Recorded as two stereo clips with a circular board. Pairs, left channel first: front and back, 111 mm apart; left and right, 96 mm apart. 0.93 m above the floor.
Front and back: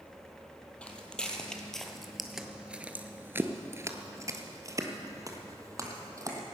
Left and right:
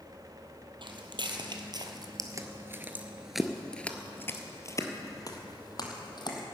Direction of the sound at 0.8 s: 80° right.